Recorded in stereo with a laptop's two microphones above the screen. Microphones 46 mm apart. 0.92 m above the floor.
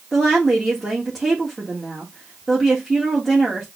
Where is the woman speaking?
5° right (ahead or behind), 1.2 m.